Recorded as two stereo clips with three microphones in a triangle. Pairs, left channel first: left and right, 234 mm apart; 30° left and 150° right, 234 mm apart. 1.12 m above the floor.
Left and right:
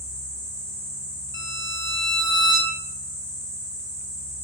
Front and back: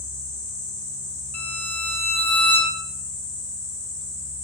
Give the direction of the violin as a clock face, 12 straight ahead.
8 o'clock.